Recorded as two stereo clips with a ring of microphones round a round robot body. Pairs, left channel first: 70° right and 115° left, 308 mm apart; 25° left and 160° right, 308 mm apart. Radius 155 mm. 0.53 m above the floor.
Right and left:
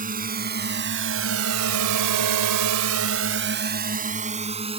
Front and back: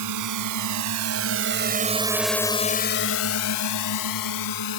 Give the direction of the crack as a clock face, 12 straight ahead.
No crack in this recording.